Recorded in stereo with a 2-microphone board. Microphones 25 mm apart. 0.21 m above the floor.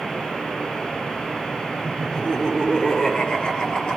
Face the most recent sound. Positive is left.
turn(degrees=35)  # may be behind; listen again after turning